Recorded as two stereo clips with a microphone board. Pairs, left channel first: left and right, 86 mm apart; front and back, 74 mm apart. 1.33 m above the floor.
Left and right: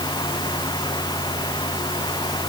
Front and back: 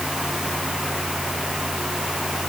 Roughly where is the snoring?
No snoring in this recording.